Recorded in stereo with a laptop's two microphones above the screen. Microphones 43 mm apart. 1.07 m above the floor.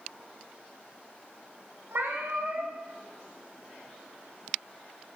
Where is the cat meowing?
65° right (ahead or behind), 0.8 m.